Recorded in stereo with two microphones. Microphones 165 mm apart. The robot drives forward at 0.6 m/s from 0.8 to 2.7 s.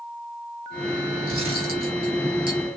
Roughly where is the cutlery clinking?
Right.